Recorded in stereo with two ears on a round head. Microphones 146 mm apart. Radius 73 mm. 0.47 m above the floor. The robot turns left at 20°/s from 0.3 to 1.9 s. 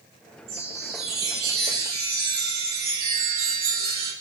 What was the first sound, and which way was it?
A chime, 85° right.